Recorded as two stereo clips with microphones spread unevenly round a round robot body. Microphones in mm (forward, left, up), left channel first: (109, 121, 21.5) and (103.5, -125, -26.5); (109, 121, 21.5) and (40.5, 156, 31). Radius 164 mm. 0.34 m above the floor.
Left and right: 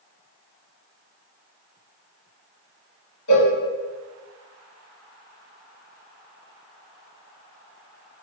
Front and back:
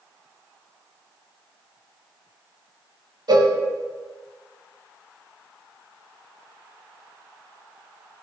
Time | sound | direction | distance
3.3 | a cowbell | 115° left | 0.6 m